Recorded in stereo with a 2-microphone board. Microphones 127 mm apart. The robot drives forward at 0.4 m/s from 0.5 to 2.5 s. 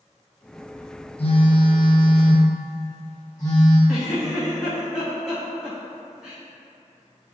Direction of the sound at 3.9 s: 5° right (ahead or behind).